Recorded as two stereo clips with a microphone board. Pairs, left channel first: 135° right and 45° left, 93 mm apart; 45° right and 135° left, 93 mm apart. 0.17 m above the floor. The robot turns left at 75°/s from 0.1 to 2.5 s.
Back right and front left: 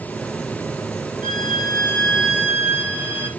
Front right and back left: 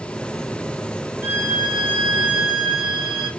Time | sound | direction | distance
1.2 | a violin | 160° right | 3.5 m